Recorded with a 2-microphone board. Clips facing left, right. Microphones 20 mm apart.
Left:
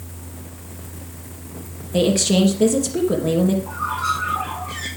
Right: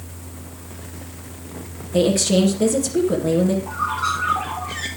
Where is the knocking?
No knocking in this recording.